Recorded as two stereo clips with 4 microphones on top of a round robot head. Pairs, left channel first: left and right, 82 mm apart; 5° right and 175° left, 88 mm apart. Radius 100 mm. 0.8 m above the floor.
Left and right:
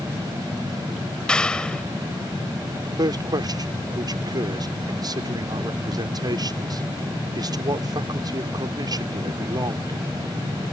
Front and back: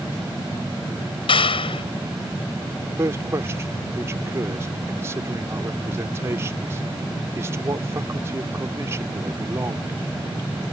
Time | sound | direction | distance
1.3 | a clap | 10° left | ?
3.0 | a man speaking | 125° right | ?